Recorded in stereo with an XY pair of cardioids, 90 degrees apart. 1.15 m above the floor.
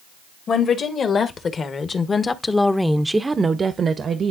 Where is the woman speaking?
65° left, 1.7 m; by 4.3 s 65° right, 1.0 m.